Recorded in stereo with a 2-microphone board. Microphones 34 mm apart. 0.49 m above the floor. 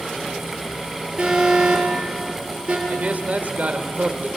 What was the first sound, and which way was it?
An alarm, 30° right (ahead or behind).